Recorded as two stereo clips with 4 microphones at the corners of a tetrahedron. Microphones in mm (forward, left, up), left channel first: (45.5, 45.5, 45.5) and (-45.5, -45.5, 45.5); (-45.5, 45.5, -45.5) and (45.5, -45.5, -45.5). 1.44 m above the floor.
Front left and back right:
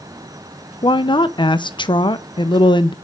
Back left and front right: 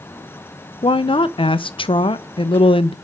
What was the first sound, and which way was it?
A woman speaking, 90° left.